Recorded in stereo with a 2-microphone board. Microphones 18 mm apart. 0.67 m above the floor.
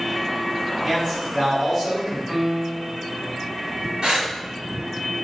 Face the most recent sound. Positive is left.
turn(degrees=-70)  # may be behind; listen again after turning